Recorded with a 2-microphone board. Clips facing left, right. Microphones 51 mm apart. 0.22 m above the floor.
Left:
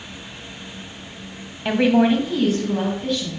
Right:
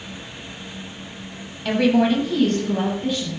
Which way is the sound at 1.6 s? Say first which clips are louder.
Left 1 dB; 25° left (ahead or behind).